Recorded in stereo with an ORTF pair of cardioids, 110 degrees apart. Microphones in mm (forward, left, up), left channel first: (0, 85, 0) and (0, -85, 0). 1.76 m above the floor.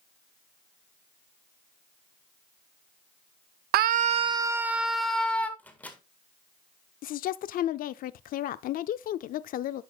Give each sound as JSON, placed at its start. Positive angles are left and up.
{"t": 3.7, "sound": "a scream", "azimuth_deg": -70, "distance_m": 0.8}
{"t": 5.6, "sound": "a microwave", "azimuth_deg": 10, "distance_m": 1.8}
{"t": 7.0, "sound": "a woman speaking", "azimuth_deg": 55, "distance_m": 0.6}